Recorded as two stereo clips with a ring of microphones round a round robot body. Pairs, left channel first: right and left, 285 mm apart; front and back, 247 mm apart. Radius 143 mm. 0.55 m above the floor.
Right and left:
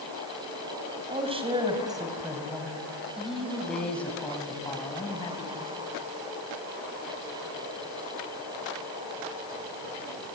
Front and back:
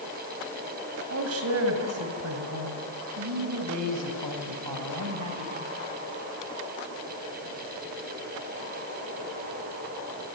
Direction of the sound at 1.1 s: 160° left.